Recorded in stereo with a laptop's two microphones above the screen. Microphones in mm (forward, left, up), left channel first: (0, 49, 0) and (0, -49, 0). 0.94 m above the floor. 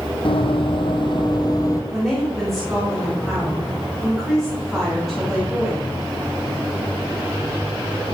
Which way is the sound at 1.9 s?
Centre (ahead or behind).